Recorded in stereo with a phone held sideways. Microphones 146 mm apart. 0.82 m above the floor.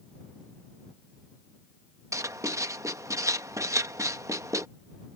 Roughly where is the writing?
Right.